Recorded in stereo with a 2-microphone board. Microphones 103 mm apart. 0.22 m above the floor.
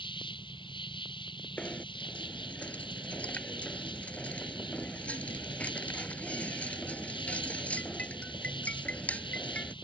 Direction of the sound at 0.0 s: 50° left (ahead or behind).